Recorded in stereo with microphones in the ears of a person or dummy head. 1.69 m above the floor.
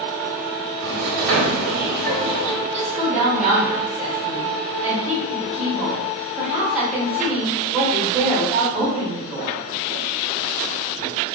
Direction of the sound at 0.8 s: 60° right (ahead or behind).